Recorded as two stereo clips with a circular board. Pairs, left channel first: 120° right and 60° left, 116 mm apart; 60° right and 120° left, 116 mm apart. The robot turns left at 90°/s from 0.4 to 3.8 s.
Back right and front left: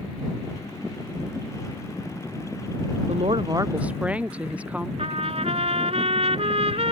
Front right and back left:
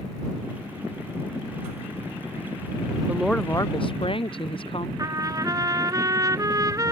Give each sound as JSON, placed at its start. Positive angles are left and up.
{"t": 3.1, "sound": "a woman speaking", "azimuth_deg": 45}
{"t": 5.0, "sound": "a trumpet", "azimuth_deg": 65}